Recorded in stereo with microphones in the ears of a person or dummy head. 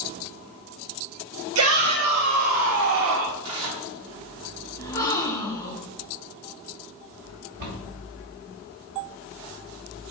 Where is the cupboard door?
45° right (ahead or behind), 1.7 m.